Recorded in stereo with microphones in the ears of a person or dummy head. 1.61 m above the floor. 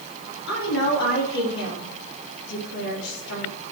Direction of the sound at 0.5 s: 80° left.